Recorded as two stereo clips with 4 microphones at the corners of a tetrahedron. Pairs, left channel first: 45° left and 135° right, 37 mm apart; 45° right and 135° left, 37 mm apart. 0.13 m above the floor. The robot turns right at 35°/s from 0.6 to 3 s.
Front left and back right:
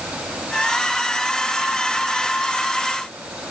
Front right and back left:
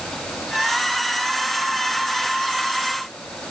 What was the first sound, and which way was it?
Only background noise.